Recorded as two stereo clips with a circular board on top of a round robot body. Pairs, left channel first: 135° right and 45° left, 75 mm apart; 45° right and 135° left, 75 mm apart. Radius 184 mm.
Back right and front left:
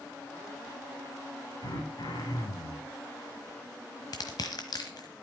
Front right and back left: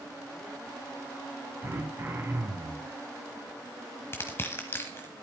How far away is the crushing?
About 1.2 m.